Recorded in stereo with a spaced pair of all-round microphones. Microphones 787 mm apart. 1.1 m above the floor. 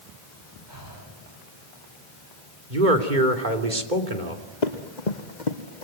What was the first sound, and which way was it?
Breathing, 75° right (ahead or behind).